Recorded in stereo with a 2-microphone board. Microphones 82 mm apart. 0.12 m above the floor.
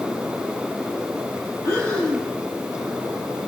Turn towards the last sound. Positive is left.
turn(degrees=40)  # may be behind; listen again after turning